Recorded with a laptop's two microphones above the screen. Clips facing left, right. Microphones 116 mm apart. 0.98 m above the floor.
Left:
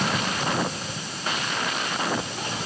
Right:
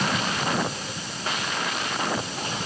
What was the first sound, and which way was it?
Only background noise.